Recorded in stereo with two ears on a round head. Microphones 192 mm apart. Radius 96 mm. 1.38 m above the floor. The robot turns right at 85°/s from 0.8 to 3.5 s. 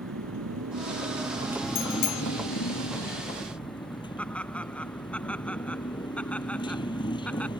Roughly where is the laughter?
Centre.